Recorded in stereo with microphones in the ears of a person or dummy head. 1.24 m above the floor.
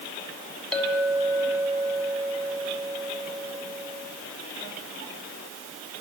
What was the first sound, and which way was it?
A clink, 5° left (ahead or behind).